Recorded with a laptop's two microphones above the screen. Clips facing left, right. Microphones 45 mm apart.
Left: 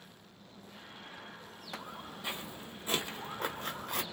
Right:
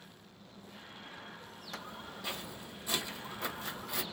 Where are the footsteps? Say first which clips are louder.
Left 1 dB; 15° left (ahead or behind), 1.5 m; by 4.0 s 45° left (ahead or behind), 1.3 m.